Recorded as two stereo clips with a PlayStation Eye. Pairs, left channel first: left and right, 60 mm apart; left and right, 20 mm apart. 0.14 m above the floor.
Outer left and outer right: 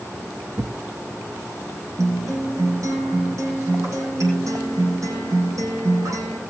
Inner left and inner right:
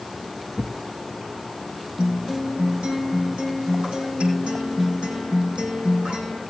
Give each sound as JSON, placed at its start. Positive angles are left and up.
{"t": 0.6, "sound": "a thud", "side_deg": -55, "distance_m": 0.9}
{"t": 2.0, "sound": "a guitar", "side_deg": -60, "distance_m": 7.0}